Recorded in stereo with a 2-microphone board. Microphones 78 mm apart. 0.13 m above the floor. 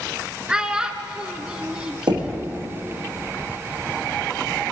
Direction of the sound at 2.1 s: 70° right (ahead or behind).